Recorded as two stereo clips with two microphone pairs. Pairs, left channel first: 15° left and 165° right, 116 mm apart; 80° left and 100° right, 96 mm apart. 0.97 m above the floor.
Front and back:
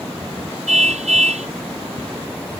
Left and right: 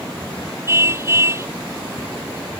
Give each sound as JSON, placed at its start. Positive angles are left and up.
{"t": 0.7, "sound": "a car horn", "azimuth_deg": -160}